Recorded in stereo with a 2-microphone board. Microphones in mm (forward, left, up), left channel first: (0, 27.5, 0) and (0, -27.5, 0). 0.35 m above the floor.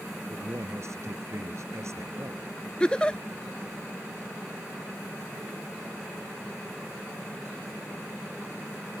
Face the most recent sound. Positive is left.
turn(degrees=15)  # may be behind; listen again after turning